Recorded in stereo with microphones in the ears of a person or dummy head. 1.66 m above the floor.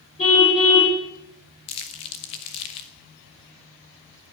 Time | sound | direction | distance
0.2 | a car horn | 35° left (ahead or behind) | 7.5 m
1.7 | crumpling | 25° left (ahead or behind) | 0.9 m